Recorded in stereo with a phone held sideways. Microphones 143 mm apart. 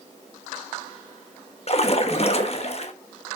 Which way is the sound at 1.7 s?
45° left (ahead or behind).